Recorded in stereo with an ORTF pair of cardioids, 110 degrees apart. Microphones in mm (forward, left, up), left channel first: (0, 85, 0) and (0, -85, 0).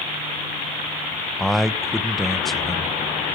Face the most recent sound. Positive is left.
turn(degrees=0)